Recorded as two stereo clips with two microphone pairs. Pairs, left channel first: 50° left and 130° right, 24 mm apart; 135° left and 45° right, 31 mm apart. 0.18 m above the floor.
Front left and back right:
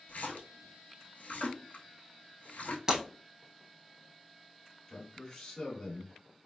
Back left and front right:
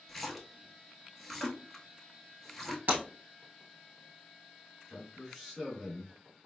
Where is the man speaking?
45° left, 1.3 m.